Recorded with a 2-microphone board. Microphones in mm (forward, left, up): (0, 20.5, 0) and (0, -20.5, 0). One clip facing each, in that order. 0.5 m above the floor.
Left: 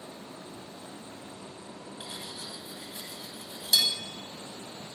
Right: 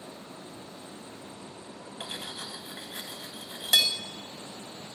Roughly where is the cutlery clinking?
Right.